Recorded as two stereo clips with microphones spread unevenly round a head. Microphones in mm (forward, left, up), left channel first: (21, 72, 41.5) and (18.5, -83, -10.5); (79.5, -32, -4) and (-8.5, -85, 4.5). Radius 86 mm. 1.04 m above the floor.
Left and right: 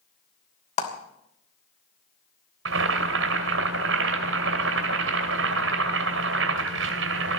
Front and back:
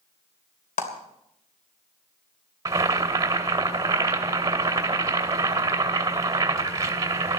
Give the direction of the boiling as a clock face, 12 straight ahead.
3 o'clock.